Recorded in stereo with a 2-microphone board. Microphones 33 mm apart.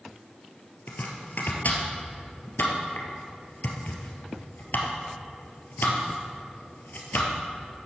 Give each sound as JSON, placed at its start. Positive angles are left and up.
{"t": 0.9, "sound": "chopping", "side_deg": 65, "distance_m": 2.0}